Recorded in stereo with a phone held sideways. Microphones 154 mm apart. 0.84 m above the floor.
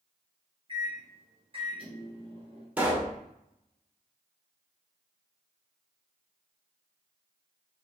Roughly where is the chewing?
No chewing in this recording.